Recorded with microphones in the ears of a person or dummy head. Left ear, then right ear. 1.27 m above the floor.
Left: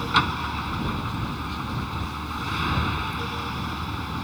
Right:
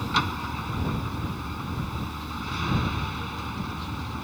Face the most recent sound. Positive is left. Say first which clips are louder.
# left 4 dB
turn(degrees=10)  # may be behind; listen again after turning